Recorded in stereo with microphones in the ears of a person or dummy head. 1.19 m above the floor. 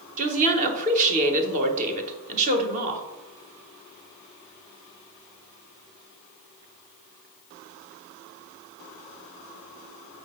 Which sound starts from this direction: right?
A woman speaking, at 0.2 s.